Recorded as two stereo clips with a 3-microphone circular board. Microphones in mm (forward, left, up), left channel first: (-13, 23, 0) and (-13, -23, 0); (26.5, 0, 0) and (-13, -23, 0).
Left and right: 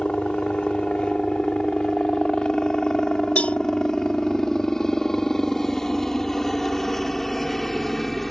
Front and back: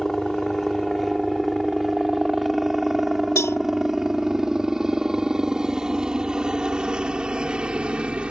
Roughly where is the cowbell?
Ahead left.